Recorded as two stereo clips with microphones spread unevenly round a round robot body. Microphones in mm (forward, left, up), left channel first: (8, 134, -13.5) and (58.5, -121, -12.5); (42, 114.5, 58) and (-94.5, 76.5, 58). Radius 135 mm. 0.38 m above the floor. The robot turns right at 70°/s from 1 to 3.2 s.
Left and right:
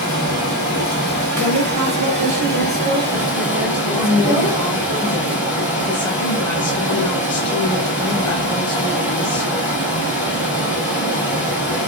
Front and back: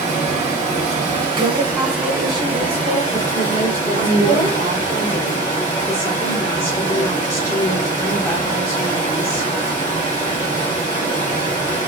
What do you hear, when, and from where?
0.0 s running water: 150° right, 1.6 m; by 11.9 s straight ahead, 1.6 m
1.4 s a woman speaking: 140° right, 1.4 m; by 4.6 s 10° right, 1.4 m
3.9 s a woman speaking: 50° left, 0.8 m